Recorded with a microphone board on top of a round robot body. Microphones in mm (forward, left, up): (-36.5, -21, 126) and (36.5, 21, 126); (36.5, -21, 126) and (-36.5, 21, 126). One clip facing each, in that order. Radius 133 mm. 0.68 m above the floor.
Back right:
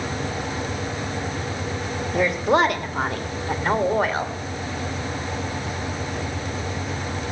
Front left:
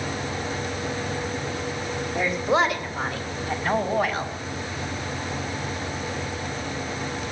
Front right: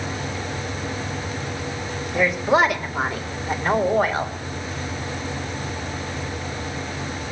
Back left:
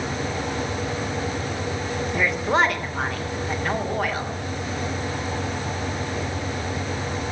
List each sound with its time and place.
2.1 s a woman speaking: 120° right, 2.5 m; by 4.3 s 90° right, 2.5 m